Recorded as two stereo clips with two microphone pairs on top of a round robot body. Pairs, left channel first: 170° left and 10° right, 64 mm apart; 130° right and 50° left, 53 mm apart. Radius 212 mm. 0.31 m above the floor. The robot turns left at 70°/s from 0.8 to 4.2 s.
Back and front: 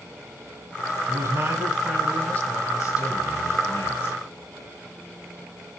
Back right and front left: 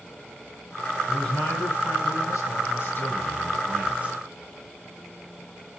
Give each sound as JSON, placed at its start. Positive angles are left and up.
{"t": 1.1, "sound": "a man speaking", "azimuth_deg": -40, "distance_m": 5.0}